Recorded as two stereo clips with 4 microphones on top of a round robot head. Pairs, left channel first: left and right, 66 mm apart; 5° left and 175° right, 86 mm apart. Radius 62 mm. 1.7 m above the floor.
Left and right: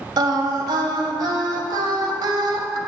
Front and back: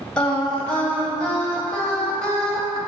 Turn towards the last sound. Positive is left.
turn(degrees=-80)